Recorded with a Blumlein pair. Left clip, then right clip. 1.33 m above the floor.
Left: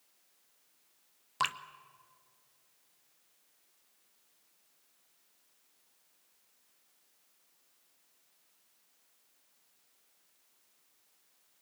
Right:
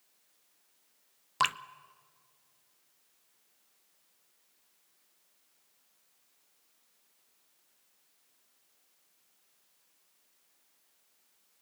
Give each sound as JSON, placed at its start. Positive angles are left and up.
{"t": 1.4, "sound": "dripping", "azimuth_deg": -15, "distance_m": 0.6}